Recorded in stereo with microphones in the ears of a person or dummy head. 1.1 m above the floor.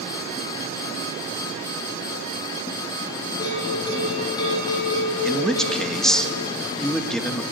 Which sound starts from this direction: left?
A bell, at 3.4 s.